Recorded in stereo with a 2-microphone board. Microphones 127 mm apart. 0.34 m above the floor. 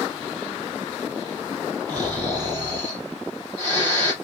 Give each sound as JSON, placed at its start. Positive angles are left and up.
{"t": 1.9, "sound": "snoring", "side_deg": -30, "distance_m": 3.5}